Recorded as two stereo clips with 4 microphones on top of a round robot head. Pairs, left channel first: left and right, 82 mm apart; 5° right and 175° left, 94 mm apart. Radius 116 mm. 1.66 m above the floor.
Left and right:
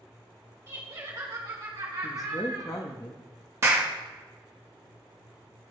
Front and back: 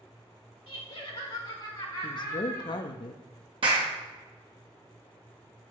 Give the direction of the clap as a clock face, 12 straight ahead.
5 o'clock.